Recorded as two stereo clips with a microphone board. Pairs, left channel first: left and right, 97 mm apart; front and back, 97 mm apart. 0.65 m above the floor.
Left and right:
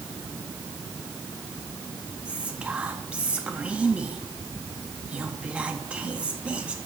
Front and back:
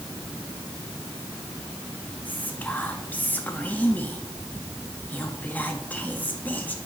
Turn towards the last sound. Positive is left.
turn(degrees=-35)